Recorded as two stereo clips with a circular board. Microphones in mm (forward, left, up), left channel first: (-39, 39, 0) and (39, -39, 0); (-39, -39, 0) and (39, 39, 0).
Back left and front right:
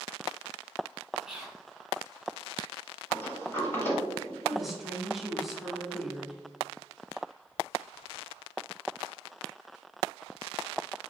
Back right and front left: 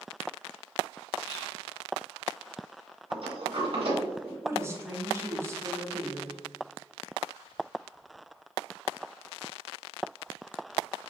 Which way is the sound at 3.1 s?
70° left.